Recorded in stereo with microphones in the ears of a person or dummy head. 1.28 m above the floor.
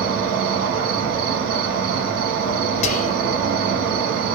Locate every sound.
0.0 s an insect: 55° right (ahead or behind), 1.6 m
2.8 s whispering: 40° left (ahead or behind), 1.0 m